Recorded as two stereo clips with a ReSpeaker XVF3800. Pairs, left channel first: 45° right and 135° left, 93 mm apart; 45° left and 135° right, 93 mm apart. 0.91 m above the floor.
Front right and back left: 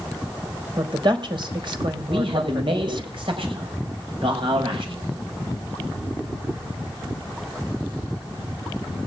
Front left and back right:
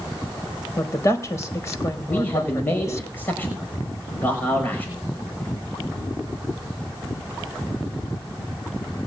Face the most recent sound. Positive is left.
turn(degrees=115)